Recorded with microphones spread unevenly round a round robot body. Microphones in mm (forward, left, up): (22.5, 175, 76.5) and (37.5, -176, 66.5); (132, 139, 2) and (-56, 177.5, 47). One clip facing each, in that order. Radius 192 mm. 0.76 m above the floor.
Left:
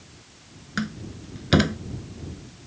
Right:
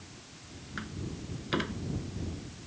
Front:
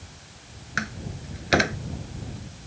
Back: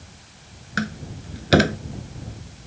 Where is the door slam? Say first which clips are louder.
Left 9 dB, back 6 dB; 120° left.